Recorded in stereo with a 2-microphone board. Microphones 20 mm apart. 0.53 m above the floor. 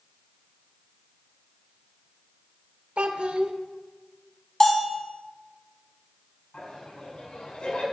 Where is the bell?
15° left (ahead or behind), 1.5 m.